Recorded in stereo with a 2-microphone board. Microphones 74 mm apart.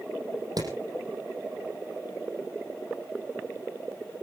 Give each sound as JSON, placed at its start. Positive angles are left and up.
{"t": 0.6, "sound": "hammering", "side_deg": -60, "distance_m": 5.0}